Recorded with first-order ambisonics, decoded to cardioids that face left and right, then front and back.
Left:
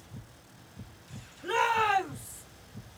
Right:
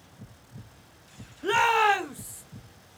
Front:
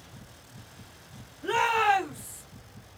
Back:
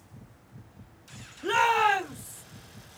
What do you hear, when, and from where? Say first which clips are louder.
1.4 s a shout: right 5 dB, back 1 dB; 110° right, 0.7 m; by 2.4 s 75° right, 1.3 m